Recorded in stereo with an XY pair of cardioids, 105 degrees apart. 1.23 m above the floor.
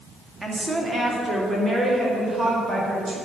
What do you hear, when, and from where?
0.4 s a woman speaking: 15° right, 2.5 m; by 3.2 s 40° right, 6 m